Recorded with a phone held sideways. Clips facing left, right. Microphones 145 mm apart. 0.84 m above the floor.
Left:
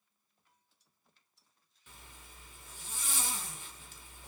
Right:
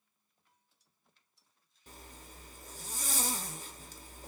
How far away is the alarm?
I don't hear an alarm.